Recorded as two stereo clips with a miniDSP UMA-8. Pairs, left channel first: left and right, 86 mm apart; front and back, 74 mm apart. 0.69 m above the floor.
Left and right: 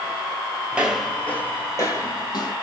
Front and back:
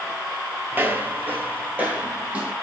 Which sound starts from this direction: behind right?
Footsteps, at 0.7 s.